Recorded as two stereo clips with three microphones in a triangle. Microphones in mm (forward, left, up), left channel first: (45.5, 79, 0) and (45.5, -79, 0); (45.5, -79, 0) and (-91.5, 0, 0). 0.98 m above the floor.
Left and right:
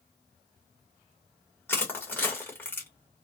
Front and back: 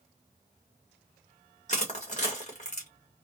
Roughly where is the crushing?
Ahead.